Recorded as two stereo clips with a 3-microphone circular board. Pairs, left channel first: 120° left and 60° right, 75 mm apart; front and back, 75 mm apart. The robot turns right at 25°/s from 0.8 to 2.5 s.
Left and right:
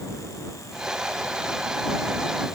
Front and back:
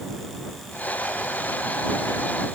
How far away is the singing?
I don't hear singing.